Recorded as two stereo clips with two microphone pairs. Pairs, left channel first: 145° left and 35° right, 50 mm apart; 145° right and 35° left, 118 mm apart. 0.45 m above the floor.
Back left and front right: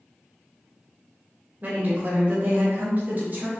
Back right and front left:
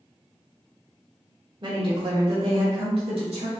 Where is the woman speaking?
Straight ahead, 1.4 m; by 3.5 s 10° left, 2 m.